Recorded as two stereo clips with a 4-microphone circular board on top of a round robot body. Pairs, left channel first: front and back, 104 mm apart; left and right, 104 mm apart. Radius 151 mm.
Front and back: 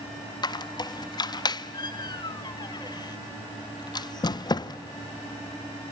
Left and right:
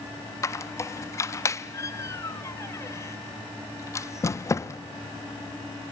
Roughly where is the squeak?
Ahead left.